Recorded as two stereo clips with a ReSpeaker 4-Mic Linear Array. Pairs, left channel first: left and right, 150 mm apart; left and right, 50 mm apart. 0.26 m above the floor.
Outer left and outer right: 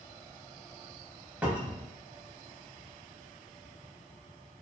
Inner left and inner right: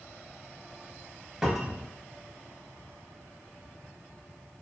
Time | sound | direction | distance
1.4 | a cupboard door | 10° right (ahead or behind) | 0.6 m